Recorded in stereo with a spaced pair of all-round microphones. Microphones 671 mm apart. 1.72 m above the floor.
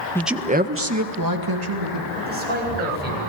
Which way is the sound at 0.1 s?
5° left (ahead or behind).